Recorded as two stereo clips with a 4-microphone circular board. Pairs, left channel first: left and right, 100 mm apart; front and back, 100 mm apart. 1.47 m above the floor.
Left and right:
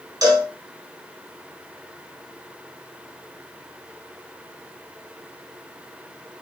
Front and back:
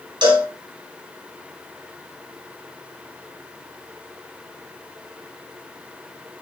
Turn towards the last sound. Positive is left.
turn(degrees=-140)